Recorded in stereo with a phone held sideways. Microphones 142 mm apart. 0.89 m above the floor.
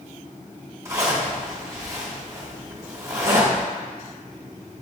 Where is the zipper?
20° right (ahead or behind), 1.1 m.